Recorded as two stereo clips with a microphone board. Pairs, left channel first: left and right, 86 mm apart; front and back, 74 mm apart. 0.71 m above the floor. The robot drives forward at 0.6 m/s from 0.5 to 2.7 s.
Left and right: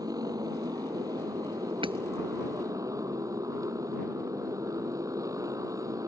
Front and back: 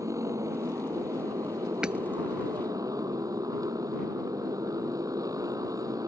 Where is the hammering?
100° right.